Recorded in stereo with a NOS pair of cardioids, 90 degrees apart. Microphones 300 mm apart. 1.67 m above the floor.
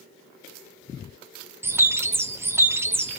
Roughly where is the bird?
Ahead.